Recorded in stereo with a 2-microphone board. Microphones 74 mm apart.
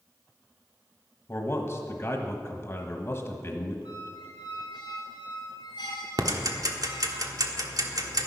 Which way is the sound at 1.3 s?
35° left (ahead or behind).